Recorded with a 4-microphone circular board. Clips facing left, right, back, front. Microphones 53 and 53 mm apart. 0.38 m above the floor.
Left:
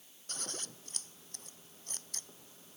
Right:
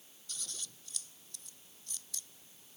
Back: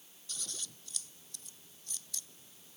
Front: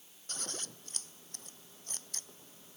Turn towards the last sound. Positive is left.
turn(degrees=45)